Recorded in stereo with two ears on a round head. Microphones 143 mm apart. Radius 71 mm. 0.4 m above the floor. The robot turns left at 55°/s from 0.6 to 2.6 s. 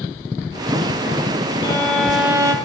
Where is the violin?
25° left, 2.5 m; by 2.5 s 30° right, 2.5 m.